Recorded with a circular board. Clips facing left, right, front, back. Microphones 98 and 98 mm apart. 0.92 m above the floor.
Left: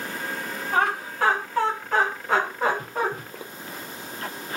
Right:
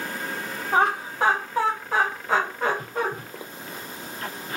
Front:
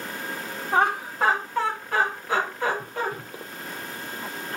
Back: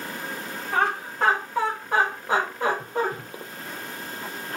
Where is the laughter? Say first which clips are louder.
Right 2 dB, front 2 dB; 50° right, 0.9 m; by 3.1 s 170° left, 1.3 m.